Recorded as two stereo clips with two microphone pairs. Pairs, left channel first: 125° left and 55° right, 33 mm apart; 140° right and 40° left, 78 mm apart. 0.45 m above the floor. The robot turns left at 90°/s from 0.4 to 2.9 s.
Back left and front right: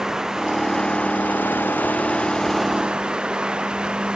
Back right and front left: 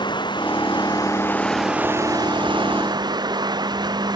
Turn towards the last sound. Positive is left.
turn(degrees=10)